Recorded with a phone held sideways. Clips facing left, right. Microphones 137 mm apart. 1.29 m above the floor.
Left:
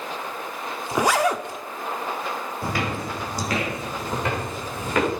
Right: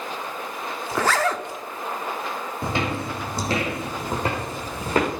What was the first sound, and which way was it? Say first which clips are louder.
A zipper: left 2 dB; 15° left (ahead or behind).